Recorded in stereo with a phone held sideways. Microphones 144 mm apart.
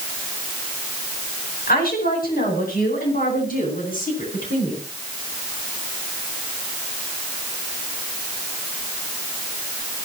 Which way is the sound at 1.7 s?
80° left.